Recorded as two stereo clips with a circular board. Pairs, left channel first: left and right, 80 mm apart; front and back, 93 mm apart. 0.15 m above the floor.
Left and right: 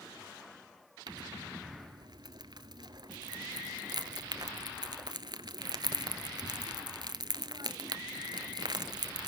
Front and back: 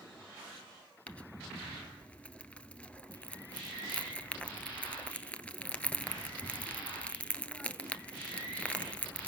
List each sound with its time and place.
1.1 s crumpling: 75° right, 1.2 m